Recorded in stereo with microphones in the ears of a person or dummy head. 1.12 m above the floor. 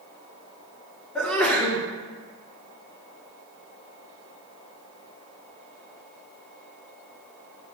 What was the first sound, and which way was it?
A sneeze, centre (ahead or behind).